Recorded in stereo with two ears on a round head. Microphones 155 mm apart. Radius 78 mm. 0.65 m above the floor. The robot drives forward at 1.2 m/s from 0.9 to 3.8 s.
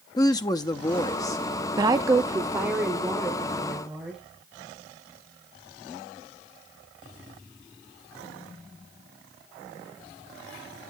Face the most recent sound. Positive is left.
turn(degrees=-5)  # may be behind; listen again after turning